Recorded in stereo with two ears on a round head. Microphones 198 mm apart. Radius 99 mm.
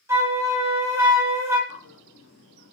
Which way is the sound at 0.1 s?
15° right (ahead or behind).